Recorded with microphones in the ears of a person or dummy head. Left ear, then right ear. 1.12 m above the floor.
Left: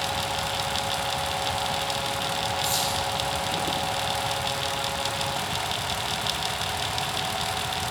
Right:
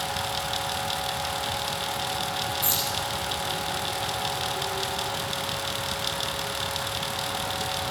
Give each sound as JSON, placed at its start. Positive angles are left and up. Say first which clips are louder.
{"t": 2.6, "sound": "keys jangling", "louder": "left 2 dB", "side_deg": -35, "distance_m": 2.0}